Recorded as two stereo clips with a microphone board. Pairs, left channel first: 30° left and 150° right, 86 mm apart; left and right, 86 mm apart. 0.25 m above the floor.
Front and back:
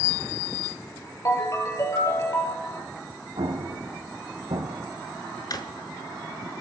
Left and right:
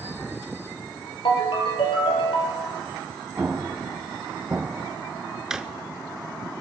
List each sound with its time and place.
1.2 s a ringtone: 80° left, 2.5 m
3.4 s an explosion: 160° right, 1.9 m
5.5 s a drawer: 10° right, 0.8 m